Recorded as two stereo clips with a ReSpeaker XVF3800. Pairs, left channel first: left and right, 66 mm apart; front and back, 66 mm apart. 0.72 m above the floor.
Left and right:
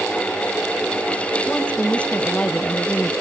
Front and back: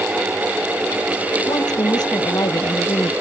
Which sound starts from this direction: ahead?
A woman speaking, at 1.5 s.